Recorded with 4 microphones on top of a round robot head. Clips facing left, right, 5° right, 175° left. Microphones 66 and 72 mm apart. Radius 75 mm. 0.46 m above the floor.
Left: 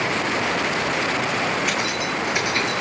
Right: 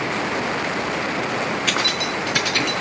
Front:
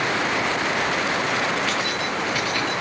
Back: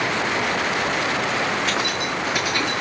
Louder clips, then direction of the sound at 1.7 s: Right 1 dB, back 1 dB; 110° right.